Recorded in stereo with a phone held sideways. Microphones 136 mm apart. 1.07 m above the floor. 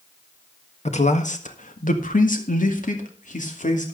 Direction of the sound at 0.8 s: 55° left (ahead or behind).